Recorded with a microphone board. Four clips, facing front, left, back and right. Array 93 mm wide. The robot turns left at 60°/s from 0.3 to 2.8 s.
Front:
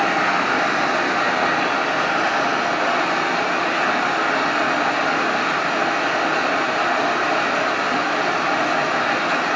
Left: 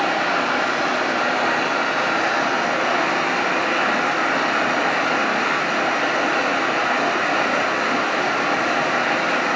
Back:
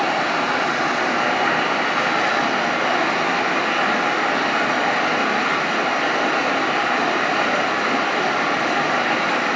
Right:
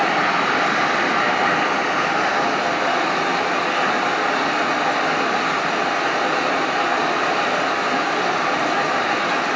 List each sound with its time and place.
0.0 s running water: 65° right, 1.3 m; by 9.6 s 145° left, 1.3 m